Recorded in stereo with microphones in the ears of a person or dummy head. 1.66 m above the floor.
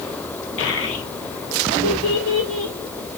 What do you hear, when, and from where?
0.6 s a child speaking: 70° left (ahead or behind), 1.5 m; by 3.2 s 60° left (ahead or behind), 2.5 m